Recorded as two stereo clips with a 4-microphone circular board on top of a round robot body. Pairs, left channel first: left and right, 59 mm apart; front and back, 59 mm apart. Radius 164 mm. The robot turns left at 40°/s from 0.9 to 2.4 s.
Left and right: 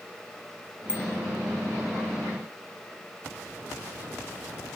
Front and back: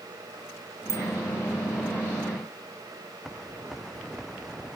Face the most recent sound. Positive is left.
turn(degrees=85)